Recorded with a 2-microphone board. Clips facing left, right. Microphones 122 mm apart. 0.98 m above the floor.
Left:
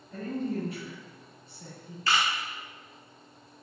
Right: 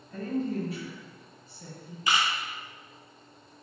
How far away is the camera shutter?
About 0.5 m.